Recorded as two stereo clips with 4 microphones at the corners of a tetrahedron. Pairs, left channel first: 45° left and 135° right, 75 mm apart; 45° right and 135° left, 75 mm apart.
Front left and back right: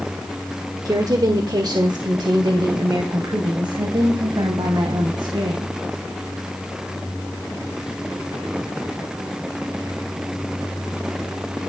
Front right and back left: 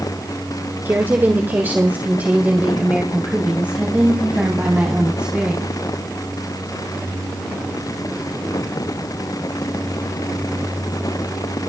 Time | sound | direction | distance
0.8 | a woman speaking | 165° right | 1.7 m